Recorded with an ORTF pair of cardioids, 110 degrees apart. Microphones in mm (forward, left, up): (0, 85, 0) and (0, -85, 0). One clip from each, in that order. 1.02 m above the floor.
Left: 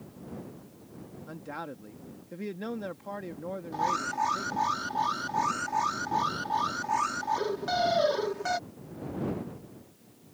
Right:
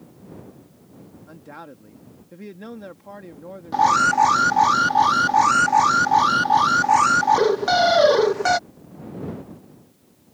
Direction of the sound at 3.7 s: 60° right.